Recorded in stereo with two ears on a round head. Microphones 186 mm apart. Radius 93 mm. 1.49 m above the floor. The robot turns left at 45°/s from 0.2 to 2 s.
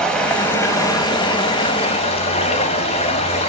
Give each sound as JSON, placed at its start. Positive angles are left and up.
{"t": 0.0, "sound": "running water", "side_deg": 5, "distance_m": 1.4}